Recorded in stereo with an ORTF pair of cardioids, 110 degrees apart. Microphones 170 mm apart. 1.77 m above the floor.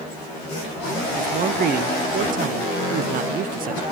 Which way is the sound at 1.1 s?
55° right.